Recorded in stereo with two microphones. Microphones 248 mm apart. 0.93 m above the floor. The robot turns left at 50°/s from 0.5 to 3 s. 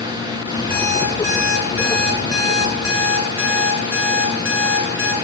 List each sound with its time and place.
0.7 s an alarm clock: 175° left, 7 m; by 5.1 s 60° left, 7 m